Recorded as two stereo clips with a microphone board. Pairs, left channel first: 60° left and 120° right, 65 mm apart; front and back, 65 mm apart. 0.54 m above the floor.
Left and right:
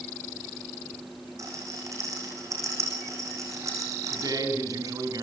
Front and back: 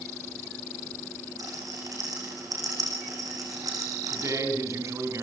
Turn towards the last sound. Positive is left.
turn(degrees=-140)